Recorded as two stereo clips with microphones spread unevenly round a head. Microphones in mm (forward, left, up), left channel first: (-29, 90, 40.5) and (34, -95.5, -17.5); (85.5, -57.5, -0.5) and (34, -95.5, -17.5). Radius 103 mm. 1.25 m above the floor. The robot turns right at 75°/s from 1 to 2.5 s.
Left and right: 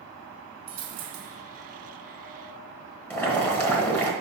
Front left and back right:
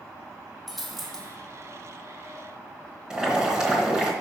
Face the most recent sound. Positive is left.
turn(degrees=120)